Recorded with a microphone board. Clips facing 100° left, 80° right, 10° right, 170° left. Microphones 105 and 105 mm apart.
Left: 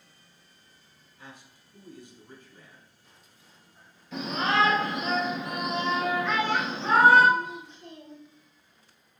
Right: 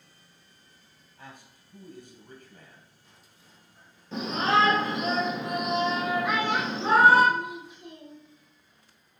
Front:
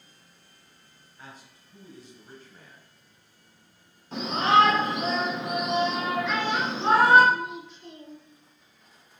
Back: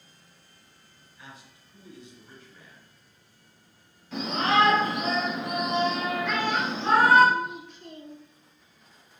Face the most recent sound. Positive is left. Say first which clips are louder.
# even, even
turn(degrees=-160)